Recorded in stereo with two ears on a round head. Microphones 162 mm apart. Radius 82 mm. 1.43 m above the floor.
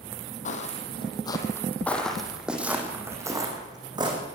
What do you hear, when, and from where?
0.5 s footsteps: 40° left (ahead or behind), 3.5 m; by 4.2 s 25° right (ahead or behind), 6 m